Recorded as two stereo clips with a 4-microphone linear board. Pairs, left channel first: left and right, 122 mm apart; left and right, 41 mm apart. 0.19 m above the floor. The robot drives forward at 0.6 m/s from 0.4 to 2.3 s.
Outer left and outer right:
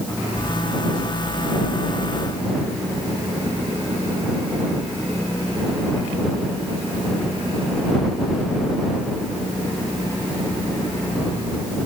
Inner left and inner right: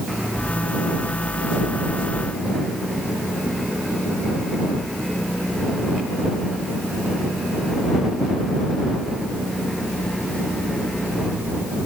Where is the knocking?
I don't hear knocking.